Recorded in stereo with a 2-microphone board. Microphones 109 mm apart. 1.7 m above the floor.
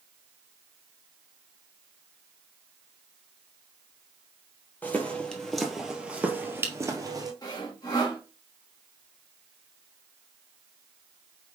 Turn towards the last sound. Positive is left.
turn(degrees=35)  # may be behind; listen again after turning